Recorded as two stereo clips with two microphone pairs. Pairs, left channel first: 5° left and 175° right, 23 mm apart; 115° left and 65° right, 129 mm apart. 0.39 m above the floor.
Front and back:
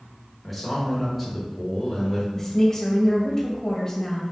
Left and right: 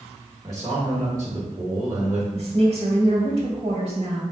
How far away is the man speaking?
About 1.2 m.